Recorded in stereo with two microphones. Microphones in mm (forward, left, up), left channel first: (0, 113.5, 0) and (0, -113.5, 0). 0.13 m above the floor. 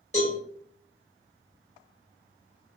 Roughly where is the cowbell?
Left.